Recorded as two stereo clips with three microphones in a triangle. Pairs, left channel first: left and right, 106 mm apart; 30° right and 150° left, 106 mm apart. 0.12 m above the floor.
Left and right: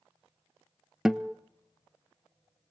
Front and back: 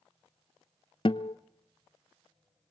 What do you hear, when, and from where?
1.1 s a guitar: 5° right, 0.6 m